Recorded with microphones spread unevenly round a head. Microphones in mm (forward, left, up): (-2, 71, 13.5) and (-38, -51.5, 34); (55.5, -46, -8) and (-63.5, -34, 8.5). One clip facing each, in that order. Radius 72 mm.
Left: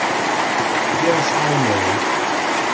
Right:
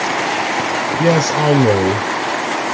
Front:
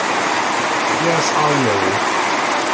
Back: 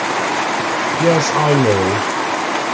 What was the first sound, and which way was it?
A man speaking, 125° right.